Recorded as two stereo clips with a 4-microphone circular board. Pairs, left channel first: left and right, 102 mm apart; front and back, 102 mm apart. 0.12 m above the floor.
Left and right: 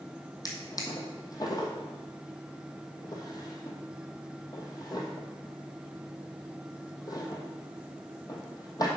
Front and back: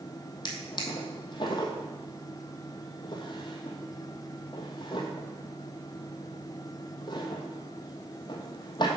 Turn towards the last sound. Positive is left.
turn(degrees=40)